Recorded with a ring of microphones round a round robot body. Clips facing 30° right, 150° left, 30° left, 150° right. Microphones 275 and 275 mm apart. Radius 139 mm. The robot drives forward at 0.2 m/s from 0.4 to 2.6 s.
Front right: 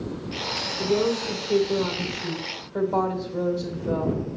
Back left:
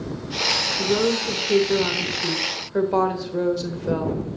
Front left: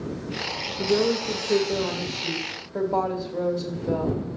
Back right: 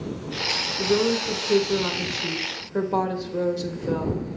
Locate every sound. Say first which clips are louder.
0.8 s a woman speaking: back left 1 dB, even; 155° left, 1.0 m; by 4.4 s 165° left, 1.2 m